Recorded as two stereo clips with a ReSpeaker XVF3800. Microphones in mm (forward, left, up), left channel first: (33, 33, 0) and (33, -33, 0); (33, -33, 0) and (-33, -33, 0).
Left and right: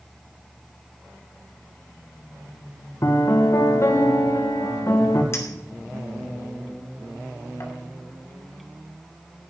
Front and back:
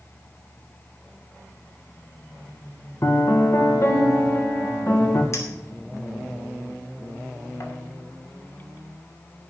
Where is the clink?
40° left, 2.5 m.